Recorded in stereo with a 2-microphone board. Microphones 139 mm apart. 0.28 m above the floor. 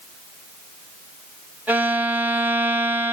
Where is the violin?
10° right (ahead or behind), 1.0 m.